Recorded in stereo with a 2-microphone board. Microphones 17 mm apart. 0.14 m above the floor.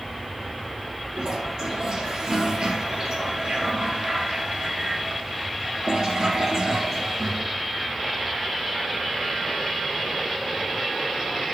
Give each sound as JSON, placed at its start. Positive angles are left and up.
{"t": 1.2, "sound": "a toilet flushing", "side_deg": -55, "distance_m": 3.0}